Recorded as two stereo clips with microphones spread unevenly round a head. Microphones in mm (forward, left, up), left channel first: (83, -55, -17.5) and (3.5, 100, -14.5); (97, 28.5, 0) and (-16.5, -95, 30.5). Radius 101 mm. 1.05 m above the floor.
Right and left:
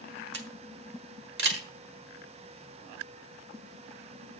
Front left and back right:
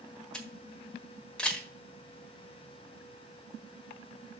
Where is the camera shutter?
135° left, 1.4 m.